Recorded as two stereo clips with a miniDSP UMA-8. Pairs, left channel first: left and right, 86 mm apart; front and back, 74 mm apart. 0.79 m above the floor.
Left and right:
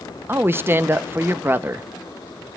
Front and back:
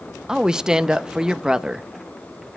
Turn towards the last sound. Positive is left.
turn(degrees=-110)